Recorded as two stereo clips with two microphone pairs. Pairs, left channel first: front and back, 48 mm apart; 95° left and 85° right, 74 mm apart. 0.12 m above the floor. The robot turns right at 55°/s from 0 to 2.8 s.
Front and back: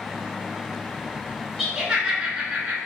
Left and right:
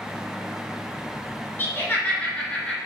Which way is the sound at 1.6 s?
95° left.